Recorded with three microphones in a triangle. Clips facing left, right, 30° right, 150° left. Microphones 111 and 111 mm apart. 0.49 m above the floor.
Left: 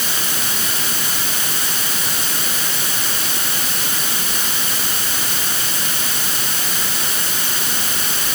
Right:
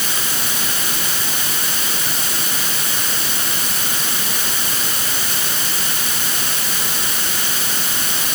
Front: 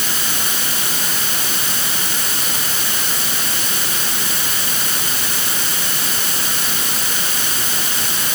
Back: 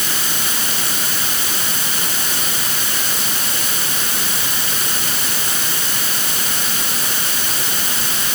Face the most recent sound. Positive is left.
No sound to turn to.